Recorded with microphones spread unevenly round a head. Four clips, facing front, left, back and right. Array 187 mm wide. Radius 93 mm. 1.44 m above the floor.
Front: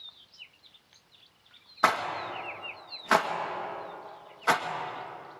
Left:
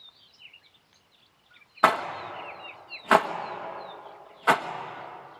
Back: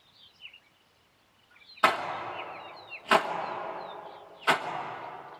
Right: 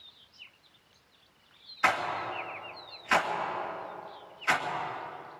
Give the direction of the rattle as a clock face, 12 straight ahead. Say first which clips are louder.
Left 5 dB, even; 9 o'clock.